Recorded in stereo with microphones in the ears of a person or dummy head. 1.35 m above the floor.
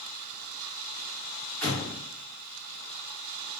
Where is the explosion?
5° left (ahead or behind), 0.8 m.